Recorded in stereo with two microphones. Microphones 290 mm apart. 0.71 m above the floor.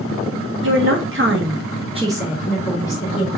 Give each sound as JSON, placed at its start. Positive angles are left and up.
{"t": 0.6, "sound": "a woman speaking", "side_deg": -45, "distance_m": 1.0}